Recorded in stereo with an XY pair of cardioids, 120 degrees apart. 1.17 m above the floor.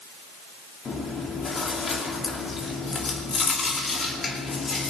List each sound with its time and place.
0.8 s chewing: 35° left, 2.5 m